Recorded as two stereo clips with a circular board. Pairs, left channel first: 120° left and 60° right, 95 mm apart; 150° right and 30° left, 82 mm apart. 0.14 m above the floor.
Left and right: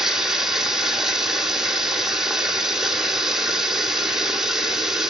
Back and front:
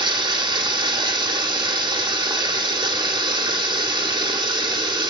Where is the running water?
25° left, 2.5 m.